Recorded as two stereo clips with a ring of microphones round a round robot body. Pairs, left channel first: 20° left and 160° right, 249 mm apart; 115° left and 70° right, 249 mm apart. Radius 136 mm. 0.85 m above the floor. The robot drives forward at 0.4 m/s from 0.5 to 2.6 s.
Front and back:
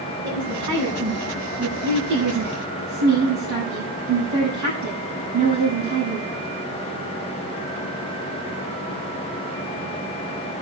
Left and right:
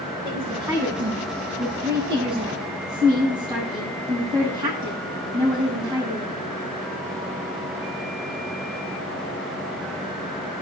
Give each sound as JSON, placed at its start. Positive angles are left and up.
{"t": 0.2, "sound": "a woman speaking", "azimuth_deg": -140, "distance_m": 9.0}